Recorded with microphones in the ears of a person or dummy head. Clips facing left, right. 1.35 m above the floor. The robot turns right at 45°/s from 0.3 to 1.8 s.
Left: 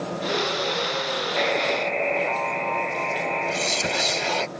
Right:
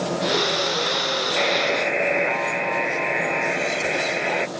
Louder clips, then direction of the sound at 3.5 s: Right 2 dB; 55° left (ahead or behind).